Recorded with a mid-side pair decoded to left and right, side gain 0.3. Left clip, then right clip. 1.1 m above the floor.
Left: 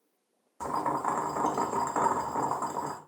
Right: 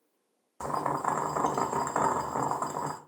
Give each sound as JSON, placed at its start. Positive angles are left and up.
{"t": 0.6, "sound": "boiling", "azimuth_deg": -40, "distance_m": 0.9}